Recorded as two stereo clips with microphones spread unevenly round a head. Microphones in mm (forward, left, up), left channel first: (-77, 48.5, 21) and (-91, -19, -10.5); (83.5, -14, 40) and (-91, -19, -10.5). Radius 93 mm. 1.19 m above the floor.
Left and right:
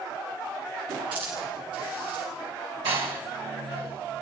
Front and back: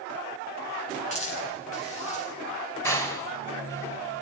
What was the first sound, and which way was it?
A hiss, 50° right.